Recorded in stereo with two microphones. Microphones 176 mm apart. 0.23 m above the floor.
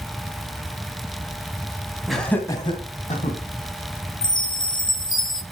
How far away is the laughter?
About 2.0 m.